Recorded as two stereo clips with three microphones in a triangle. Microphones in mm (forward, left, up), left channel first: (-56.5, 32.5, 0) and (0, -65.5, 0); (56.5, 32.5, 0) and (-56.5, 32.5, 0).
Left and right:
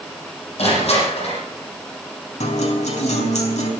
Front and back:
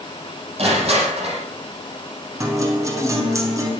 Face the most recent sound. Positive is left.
turn(degrees=120)